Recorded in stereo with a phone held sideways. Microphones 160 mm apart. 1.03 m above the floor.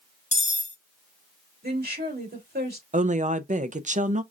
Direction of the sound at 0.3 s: 50° left (ahead or behind).